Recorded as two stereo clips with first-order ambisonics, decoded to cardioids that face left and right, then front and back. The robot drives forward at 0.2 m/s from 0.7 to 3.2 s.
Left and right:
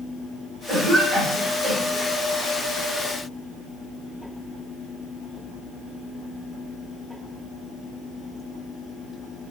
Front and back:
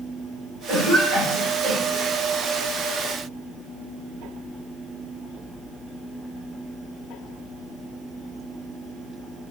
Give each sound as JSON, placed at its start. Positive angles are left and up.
{"t": 0.7, "sound": "a cough", "azimuth_deg": -155, "distance_m": 2.0}